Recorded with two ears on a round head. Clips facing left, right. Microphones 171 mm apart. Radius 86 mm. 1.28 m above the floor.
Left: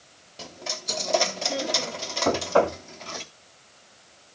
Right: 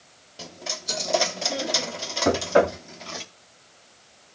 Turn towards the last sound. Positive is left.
turn(degrees=-20)  # may be behind; listen again after turning